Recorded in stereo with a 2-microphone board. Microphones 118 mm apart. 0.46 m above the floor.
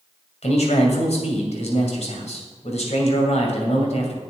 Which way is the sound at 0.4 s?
65° left (ahead or behind).